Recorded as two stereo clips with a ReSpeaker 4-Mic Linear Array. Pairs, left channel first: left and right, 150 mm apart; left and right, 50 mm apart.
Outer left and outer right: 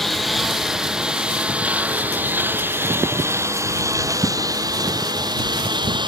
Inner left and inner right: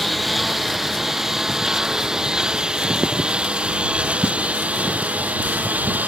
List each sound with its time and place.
0.0 s a lawn mower: centre (ahead or behind); by 6.1 s 30° right (ahead or behind)